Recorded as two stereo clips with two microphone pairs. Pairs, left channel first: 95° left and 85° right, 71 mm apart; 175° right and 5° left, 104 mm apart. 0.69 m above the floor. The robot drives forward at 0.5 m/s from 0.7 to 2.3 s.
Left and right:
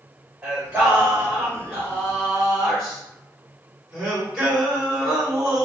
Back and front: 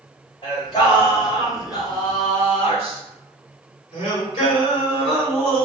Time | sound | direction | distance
0.4 | singing | 150° right | 1.8 m